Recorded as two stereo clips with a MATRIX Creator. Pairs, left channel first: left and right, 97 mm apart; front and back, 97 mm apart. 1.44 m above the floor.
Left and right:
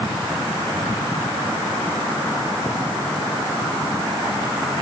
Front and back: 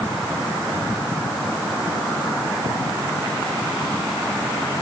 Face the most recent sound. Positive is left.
No sound to turn to.